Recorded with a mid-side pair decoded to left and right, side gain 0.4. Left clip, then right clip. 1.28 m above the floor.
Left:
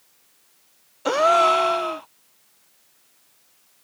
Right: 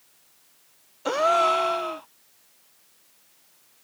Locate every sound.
1.1 s a gasp: 35° left